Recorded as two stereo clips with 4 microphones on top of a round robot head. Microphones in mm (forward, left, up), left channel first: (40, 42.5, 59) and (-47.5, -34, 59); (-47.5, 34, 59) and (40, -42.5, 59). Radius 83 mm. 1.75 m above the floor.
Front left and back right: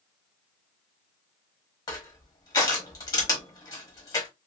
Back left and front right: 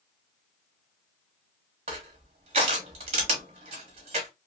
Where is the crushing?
15° right, 0.8 m.